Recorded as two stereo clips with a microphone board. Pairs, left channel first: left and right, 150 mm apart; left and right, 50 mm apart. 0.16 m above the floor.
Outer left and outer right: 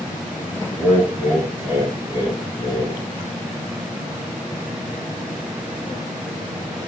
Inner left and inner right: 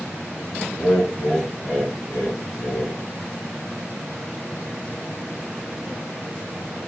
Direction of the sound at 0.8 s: 10° right (ahead or behind).